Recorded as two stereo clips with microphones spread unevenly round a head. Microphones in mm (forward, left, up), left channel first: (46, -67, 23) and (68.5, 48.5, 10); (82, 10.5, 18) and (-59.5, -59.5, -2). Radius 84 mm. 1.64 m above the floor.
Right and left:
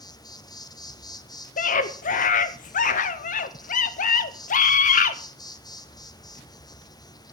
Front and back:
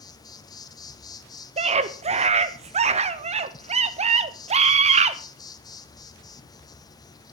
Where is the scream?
100° right, 0.6 m.